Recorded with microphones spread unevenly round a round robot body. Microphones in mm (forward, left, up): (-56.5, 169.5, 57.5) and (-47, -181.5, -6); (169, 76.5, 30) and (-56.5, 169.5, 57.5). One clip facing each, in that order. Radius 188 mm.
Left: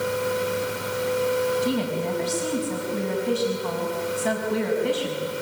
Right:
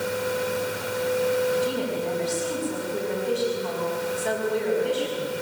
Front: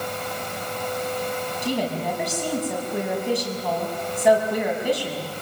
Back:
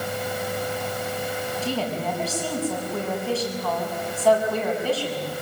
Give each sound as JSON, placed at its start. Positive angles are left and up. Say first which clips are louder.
{"t": 1.6, "sound": "a woman speaking", "louder": "left 2 dB, front 3 dB", "azimuth_deg": 55, "distance_m": 6.5}